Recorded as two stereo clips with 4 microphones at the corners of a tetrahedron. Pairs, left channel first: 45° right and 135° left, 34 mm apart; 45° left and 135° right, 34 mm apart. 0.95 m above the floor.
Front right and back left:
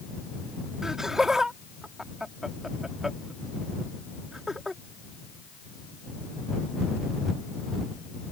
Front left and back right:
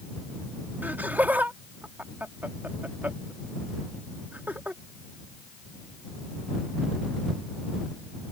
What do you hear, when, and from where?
0.8 s laughter: 155° right